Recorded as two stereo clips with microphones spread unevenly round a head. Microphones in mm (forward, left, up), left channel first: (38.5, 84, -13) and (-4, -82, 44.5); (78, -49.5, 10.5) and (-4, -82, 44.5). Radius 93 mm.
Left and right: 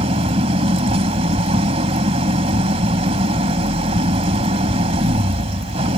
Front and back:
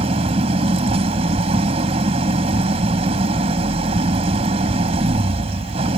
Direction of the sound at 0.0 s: 165° right.